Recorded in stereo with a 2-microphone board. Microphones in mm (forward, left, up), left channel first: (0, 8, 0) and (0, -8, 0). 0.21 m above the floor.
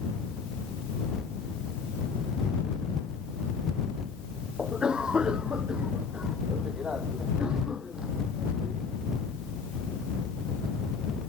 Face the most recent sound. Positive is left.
turn(degrees=-80)